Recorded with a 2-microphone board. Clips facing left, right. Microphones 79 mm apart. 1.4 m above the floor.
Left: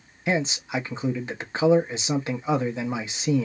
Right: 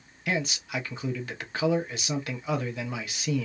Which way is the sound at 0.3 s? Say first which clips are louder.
Left 5 dB; 25° left (ahead or behind).